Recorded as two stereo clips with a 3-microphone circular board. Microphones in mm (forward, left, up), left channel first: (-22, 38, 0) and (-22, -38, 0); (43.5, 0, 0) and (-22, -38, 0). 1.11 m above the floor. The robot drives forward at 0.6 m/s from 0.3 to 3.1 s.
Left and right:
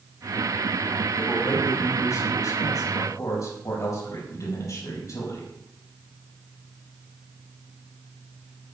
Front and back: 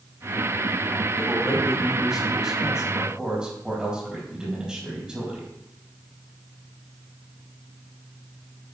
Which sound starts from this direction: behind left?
A man speaking, at 1.1 s.